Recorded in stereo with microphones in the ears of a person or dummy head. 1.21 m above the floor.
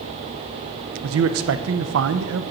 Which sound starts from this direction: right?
A man speaking, at 1.0 s.